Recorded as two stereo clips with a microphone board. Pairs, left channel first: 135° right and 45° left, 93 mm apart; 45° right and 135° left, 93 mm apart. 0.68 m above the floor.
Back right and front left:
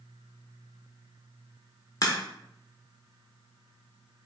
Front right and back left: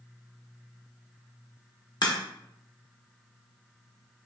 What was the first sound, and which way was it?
A crack, 85° right.